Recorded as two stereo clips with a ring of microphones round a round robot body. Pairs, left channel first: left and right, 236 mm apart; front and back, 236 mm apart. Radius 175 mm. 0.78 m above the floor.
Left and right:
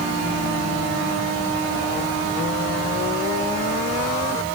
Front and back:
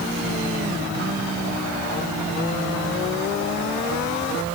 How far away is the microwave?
I don't hear a microwave.